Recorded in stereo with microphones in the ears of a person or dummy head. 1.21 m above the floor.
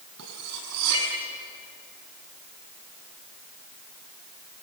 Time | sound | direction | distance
0.2 | cutlery clinking | 85° right | 7 m